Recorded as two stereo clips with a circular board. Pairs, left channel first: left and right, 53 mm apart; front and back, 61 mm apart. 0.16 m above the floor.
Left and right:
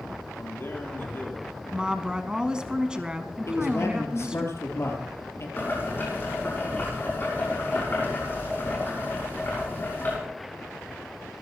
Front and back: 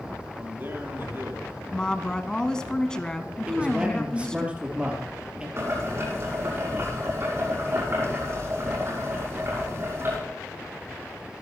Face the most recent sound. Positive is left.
turn(degrees=140)